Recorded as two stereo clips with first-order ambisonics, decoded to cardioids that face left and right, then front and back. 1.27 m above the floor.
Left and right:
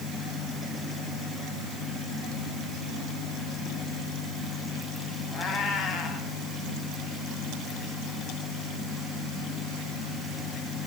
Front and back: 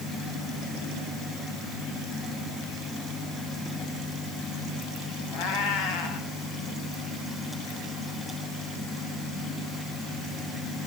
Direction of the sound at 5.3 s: 25° left.